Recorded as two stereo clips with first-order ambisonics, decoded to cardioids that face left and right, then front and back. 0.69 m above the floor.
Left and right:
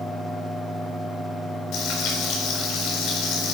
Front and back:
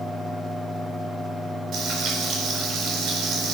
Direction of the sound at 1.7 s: 130° left.